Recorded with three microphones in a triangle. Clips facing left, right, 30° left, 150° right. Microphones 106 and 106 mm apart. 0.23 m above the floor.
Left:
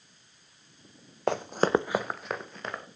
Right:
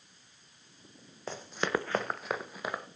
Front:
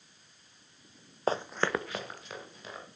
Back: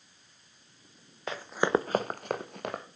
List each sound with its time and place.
1.3 s running footsteps: 75° left, 0.6 m; by 2.8 s 170° right, 2 m